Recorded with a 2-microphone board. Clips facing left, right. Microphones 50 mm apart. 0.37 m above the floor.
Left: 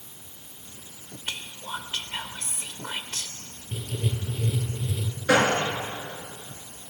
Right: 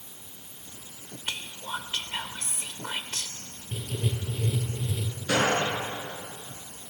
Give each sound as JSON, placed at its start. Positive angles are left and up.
{"t": 1.3, "sound": "whispering", "side_deg": -5, "distance_m": 0.9}
{"t": 3.7, "sound": "writing", "side_deg": -5, "distance_m": 3.0}
{"t": 5.3, "sound": "a gunshot", "side_deg": 75, "distance_m": 5.0}